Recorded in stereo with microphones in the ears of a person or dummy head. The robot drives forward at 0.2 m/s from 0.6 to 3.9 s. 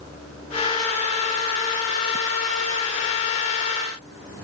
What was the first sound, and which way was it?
Only background noise.